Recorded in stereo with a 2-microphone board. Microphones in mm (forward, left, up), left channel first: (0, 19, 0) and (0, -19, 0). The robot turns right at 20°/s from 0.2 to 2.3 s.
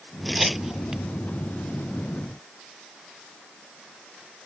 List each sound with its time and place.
0.2 s tearing paper: centre (ahead or behind); by 1.0 s 15° right (ahead or behind)